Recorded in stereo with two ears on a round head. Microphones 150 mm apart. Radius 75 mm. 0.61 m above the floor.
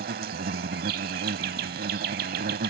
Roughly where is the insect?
Right.